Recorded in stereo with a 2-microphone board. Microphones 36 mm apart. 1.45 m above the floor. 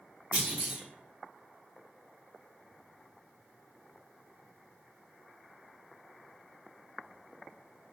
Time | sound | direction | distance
0.3 | a clunk | 45° right (ahead or behind) | 1.5 m